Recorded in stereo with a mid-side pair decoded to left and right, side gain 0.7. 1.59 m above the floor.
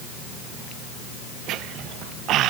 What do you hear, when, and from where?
Only background noise.